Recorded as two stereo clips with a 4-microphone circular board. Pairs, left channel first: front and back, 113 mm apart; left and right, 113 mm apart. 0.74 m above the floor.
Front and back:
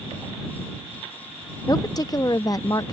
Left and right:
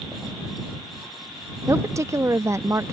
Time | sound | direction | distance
1.7 | a woman speaking | 40° right | ?